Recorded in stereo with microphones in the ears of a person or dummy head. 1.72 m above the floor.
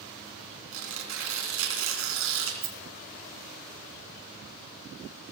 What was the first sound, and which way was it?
Tearing paper, 75° right (ahead or behind).